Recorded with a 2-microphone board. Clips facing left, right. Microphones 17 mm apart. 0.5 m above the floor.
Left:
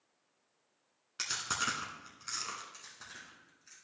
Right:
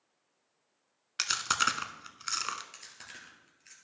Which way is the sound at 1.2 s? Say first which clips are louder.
Right 6 dB; 40° right (ahead or behind).